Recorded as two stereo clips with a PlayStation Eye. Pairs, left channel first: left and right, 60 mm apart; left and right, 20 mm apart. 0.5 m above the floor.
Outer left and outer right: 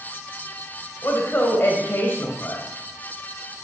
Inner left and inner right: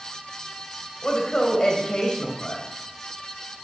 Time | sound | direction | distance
1.0 | a woman speaking | 40° left (ahead or behind) | 2.5 m